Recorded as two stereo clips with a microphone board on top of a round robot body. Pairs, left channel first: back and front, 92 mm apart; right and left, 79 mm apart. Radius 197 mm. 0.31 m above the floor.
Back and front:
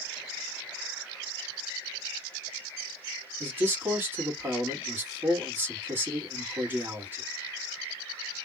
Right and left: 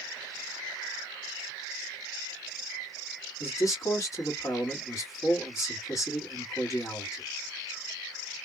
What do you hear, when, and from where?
3.4 s a man speaking: 60° right, 1.9 m